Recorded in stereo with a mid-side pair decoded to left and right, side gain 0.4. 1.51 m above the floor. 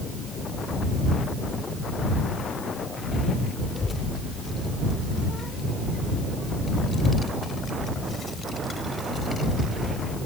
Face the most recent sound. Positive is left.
turn(degrees=35)